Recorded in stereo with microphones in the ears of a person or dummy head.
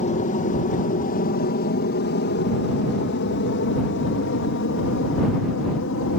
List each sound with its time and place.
0.0 s an aircraft: 35° left (ahead or behind); by 6.2 s 65° left (ahead or behind)